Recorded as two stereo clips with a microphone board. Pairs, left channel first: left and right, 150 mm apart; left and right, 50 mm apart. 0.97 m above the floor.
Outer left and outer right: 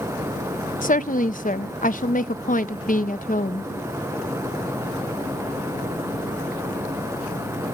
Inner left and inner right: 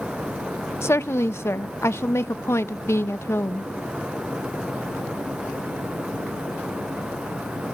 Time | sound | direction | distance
0.8 | a woman speaking | 65° left (ahead or behind) | 0.6 m